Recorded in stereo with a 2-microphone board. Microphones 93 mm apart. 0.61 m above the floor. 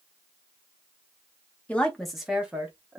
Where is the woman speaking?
15° left (ahead or behind), 0.6 m; by 3.0 s 25° right (ahead or behind), 0.9 m.